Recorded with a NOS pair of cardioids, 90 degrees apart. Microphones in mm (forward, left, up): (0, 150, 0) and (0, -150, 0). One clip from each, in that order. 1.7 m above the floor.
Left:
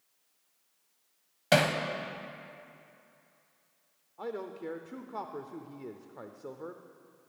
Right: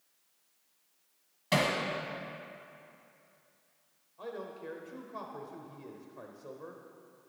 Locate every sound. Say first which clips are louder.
1.5 s hammering: left 4 dB; 40° left, 1.0 m
4.2 s a man speaking: left 3 dB; 40° left, 0.6 m